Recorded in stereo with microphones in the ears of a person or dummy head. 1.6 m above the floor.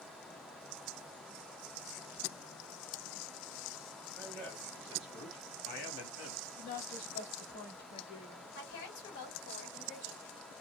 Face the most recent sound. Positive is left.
turn(degrees=60)  # may be behind; listen again after turning